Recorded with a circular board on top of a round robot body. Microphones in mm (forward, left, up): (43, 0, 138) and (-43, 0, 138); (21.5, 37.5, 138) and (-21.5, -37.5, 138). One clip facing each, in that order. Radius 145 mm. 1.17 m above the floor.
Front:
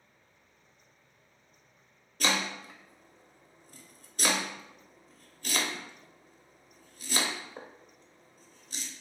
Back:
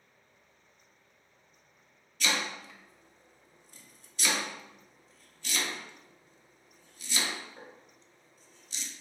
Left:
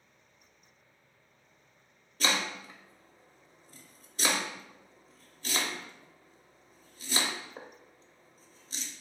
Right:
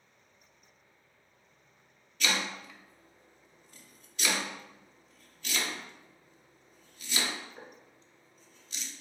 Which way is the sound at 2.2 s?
20° left.